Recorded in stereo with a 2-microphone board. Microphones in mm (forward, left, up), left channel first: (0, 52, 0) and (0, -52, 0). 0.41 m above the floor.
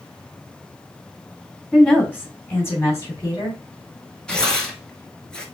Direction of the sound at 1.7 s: 10° left (ahead or behind).